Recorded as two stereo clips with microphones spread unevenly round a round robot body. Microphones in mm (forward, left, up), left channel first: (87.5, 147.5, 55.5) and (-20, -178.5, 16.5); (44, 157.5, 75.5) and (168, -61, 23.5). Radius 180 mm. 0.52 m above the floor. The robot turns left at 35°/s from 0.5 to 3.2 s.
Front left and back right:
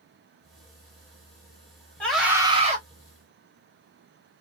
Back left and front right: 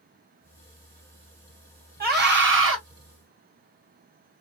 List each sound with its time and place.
2.0 s a scream: 15° right, 3 m; by 2.8 s 45° right, 3 m